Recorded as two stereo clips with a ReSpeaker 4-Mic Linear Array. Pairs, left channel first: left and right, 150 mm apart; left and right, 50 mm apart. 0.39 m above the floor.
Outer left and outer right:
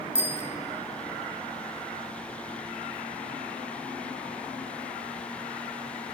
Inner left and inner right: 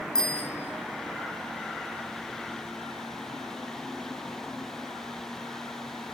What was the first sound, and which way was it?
A bicycle bell, 15° left (ahead or behind).